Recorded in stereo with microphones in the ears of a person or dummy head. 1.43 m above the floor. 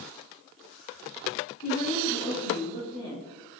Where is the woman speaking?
40° left (ahead or behind), 2.5 m; by 3.6 s 15° left (ahead or behind), 2.5 m.